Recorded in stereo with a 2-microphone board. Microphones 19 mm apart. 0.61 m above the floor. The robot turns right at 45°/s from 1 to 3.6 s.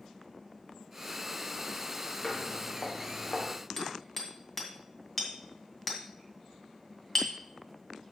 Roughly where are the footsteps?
Left.